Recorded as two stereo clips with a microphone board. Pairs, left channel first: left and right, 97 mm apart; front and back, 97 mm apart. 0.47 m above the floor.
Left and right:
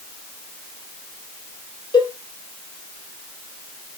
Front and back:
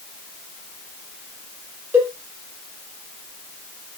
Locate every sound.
1.9 s a cowbell: 120° left, 1.6 m